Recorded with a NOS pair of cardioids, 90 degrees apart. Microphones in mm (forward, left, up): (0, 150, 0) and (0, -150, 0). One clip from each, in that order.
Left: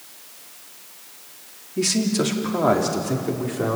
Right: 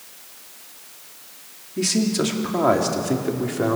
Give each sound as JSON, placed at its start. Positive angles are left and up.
{"t": 1.8, "sound": "a man speaking", "azimuth_deg": 5, "distance_m": 3.5}